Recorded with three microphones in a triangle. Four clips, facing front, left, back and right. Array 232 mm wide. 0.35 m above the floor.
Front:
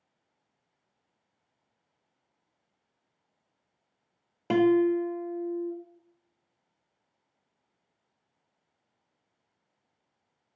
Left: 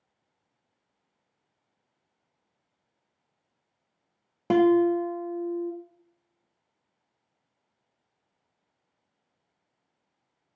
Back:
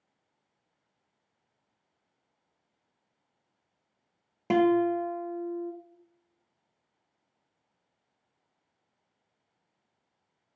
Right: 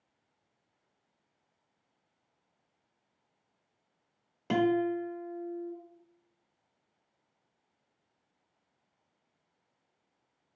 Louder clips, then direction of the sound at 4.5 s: Left 8 dB, front 1 dB; 80° left.